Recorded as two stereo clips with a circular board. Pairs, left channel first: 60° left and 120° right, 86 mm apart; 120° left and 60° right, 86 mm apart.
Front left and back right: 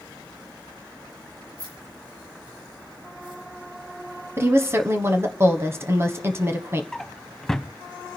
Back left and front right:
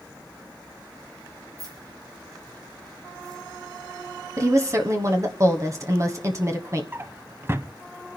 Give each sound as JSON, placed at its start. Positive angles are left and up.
{"t": 1.6, "sound": "keys jangling", "azimuth_deg": -100, "distance_m": 5.5}
{"t": 4.4, "sound": "a woman speaking", "azimuth_deg": -80, "distance_m": 1.2}
{"t": 6.9, "sound": "a drawer", "azimuth_deg": -25, "distance_m": 0.5}